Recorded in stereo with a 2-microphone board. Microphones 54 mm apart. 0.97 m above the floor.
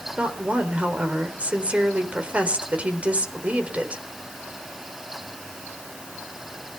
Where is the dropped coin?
I don't hear a dropped coin.